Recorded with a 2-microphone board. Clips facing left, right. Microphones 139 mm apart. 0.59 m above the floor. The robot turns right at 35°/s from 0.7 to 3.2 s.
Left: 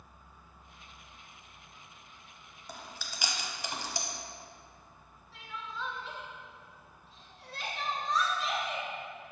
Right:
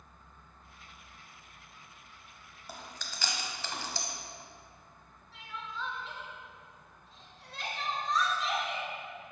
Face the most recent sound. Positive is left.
turn(degrees=0)  # may be behind; listen again after turning